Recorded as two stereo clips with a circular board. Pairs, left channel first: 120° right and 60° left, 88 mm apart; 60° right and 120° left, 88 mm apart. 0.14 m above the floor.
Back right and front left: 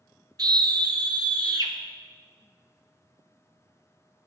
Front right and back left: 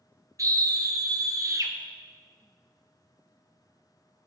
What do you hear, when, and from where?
0.4 s a scream: 80° left, 1.9 m